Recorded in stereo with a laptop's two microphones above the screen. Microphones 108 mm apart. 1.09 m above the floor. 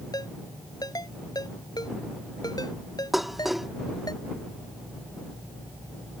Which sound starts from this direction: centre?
Dishes clattering, at 3.1 s.